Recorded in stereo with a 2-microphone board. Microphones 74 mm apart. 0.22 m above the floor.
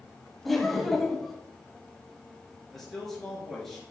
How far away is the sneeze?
No sneeze in this recording.